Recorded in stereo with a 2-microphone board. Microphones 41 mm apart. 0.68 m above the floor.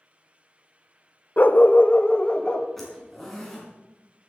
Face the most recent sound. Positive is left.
turn(degrees=5)  # may be behind; listen again after turning